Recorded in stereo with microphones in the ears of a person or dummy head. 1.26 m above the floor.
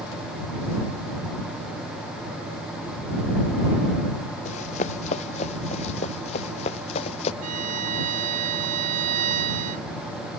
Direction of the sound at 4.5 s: 45° left (ahead or behind).